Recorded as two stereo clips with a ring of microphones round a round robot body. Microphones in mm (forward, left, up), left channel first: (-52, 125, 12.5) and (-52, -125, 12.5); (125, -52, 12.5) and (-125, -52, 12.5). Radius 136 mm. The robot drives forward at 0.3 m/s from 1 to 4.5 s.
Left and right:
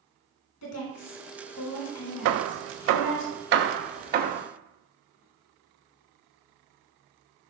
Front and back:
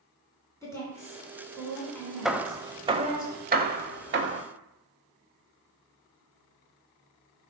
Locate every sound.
0.6 s a woman speaking: 80° left, 3 m; by 3.2 s 95° left, 3 m
2.2 s hammering: 90° right, 0.6 m; by 4.4 s 145° right, 0.9 m